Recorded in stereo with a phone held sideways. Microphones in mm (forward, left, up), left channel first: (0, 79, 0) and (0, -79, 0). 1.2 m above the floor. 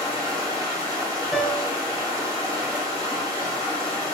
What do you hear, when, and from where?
0.0 s running water: 20° right (ahead or behind), 1.8 m
1.3 s a piano: centre (ahead or behind), 1.3 m